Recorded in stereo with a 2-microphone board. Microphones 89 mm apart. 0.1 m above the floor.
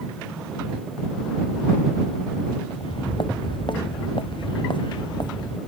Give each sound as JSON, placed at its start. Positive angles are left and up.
{"t": 2.7, "sound": "footsteps", "side_deg": 70}